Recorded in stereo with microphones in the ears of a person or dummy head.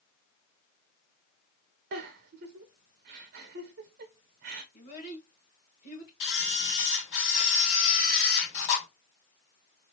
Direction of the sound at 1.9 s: 45° right (ahead or behind).